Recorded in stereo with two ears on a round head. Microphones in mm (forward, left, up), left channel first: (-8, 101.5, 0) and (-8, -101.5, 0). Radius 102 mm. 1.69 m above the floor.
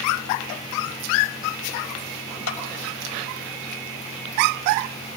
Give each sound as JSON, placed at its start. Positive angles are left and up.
{"t": 2.5, "sound": "a clap", "side_deg": 80, "distance_m": 7.0}